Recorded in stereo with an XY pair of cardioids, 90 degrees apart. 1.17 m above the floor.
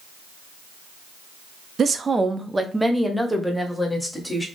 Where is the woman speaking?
50° right, 0.6 m; by 4.5 s 10° left, 1.6 m.